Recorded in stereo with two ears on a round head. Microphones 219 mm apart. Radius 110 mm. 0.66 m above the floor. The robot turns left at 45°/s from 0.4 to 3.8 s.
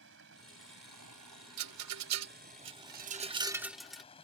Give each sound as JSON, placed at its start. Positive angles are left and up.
{"t": 0.0, "sound": "running water", "azimuth_deg": -50}
{"t": 1.6, "sound": "a rattle", "side_deg": -70}